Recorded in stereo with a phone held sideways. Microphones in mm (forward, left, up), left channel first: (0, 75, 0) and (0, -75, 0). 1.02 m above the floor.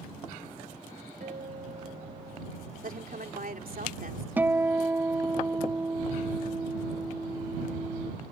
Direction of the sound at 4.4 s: 10° right (ahead or behind).